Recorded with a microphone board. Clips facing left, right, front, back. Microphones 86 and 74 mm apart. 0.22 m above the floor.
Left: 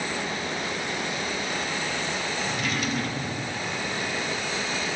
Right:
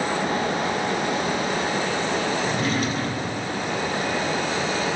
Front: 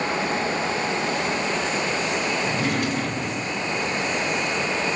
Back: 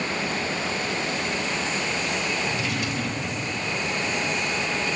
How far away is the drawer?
About 3 m.